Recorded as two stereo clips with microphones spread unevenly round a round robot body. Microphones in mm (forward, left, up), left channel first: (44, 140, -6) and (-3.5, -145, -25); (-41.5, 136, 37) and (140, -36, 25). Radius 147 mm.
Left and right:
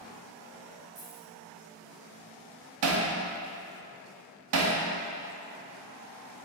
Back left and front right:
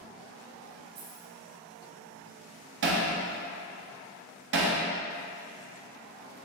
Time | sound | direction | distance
0.9 | keys jangling | 40° right | 2.5 m
2.8 | hammering | 80° right | 1.0 m